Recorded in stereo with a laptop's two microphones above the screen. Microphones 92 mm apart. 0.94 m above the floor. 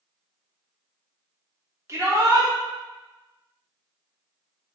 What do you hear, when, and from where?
1.9 s a shout: 35° right (ahead or behind), 1.1 m